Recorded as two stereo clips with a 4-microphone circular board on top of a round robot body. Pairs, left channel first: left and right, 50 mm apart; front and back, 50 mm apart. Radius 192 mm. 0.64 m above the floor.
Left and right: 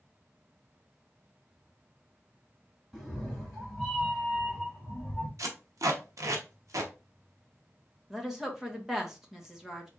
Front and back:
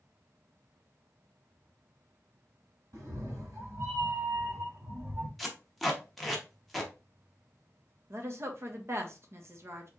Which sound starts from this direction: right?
Tape being pulled, at 5.4 s.